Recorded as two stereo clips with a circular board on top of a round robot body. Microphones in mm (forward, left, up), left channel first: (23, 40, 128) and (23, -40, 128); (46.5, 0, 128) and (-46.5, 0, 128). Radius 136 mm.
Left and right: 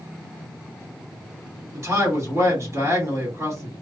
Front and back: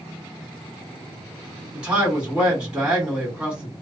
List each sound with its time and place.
1.7 s a man speaking: 105° right, 1.8 m